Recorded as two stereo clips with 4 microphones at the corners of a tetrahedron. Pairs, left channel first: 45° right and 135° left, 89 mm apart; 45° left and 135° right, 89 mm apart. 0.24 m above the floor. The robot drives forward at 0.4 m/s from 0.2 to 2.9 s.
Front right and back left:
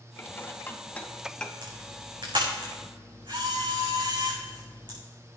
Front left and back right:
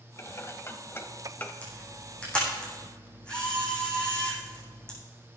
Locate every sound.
0.2 s dishes clattering: 5° left, 1.1 m; by 1.5 s 20° left, 0.8 m
1.6 s a camera shutter: 120° left, 5 m; by 5.0 s 125° left, 5.5 m